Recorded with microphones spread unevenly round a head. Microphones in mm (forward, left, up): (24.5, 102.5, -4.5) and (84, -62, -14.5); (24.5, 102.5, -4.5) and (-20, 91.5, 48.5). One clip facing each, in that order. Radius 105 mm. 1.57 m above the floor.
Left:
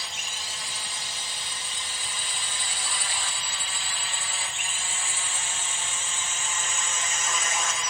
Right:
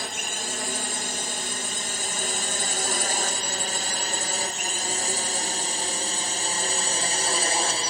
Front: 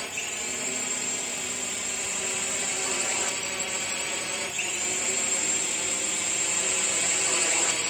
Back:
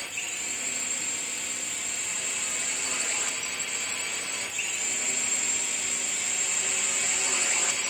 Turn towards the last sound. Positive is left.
turn(degrees=-25)